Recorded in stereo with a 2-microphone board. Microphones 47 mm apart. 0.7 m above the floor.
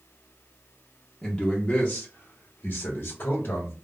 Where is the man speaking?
5° left (ahead or behind), 0.7 m; by 3.7 s 45° left (ahead or behind), 1.3 m.